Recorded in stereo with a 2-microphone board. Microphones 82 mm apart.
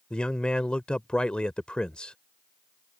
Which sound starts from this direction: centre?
A man speaking, at 0.1 s.